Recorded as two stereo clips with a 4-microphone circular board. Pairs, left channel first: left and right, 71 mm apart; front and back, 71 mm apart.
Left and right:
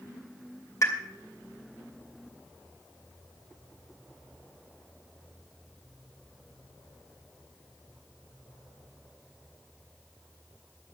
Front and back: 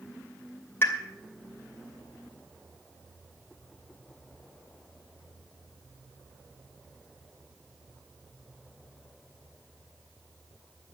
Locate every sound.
0.8 s a pop: 55° left, 2.5 m